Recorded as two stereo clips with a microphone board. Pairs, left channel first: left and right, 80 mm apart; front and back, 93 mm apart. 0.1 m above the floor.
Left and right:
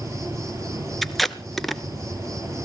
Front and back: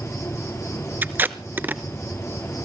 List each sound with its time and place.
0.0 s an insect: 50° right, 3.5 m
1.0 s tape being pulled: 175° left, 0.8 m